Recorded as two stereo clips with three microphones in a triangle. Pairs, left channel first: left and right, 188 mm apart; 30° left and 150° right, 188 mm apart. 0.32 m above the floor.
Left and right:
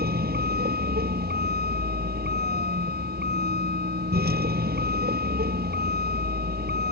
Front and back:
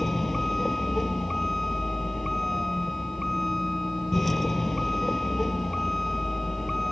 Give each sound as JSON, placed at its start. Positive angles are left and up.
{"t": 0.0, "sound": "a vehicle", "azimuth_deg": -60}